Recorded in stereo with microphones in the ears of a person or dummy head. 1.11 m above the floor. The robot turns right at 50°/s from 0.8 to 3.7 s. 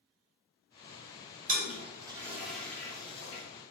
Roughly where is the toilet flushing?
Right.